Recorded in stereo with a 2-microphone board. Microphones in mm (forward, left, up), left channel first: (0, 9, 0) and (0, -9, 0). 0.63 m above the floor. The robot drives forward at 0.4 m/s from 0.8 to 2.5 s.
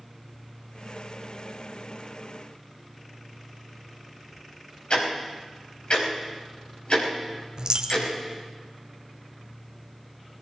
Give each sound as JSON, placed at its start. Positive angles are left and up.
{"t": 4.9, "sound": "ticking", "side_deg": 60, "distance_m": 4.5}
{"t": 7.6, "sound": "a dropped coin", "side_deg": -40, "distance_m": 0.8}